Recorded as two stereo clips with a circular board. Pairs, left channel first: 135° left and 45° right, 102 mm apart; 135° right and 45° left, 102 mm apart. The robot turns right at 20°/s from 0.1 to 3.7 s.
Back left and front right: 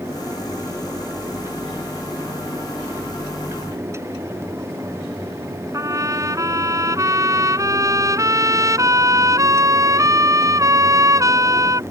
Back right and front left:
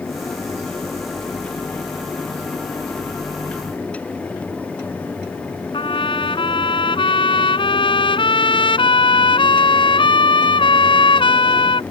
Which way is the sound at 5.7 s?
105° right.